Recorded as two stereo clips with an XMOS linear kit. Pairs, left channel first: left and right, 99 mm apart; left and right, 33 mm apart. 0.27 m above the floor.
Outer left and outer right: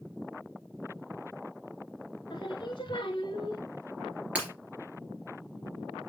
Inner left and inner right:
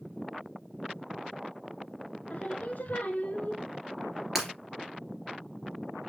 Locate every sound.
2.3 s singing: 50° left (ahead or behind), 1.3 m
4.3 s breaking glass: 15° right (ahead or behind), 3 m